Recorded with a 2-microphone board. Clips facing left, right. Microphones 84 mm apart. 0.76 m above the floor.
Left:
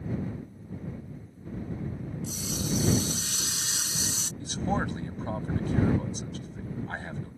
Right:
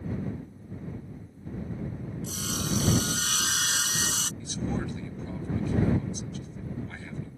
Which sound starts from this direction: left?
A man speaking, at 4.4 s.